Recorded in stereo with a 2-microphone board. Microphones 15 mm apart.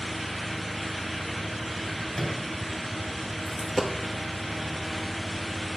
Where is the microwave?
20° left (ahead or behind), 2.5 m.